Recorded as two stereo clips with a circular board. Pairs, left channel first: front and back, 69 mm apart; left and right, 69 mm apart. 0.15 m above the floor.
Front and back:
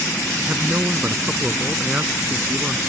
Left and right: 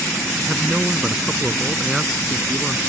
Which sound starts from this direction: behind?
A man speaking, at 0.5 s.